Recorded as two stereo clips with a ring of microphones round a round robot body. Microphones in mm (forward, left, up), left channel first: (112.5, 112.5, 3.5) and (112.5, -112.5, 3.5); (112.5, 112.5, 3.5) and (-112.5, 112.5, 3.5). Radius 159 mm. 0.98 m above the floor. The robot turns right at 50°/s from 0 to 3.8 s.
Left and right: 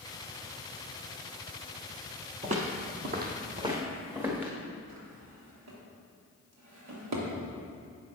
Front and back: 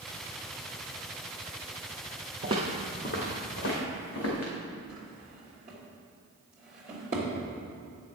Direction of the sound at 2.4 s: 135° right.